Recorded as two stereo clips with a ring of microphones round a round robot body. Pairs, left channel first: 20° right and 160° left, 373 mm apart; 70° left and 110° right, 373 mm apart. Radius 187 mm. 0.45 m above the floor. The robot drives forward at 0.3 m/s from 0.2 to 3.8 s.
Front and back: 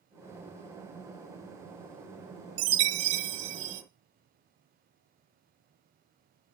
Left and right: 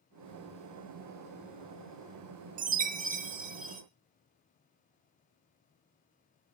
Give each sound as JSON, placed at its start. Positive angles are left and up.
{"t": 2.6, "sound": "a chime", "azimuth_deg": 180, "distance_m": 1.0}